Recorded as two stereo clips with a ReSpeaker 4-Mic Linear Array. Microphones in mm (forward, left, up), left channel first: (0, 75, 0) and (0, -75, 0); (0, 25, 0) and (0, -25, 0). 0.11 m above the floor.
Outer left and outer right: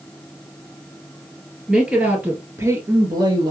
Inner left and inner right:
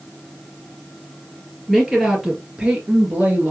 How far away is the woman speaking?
About 2.5 m.